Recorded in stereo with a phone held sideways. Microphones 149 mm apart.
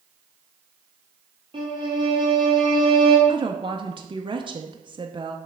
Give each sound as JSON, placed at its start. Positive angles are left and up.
{"t": 1.5, "sound": "a violin", "side_deg": -35, "distance_m": 1.7}
{"t": 3.3, "sound": "a woman speaking", "side_deg": -35, "distance_m": 0.5}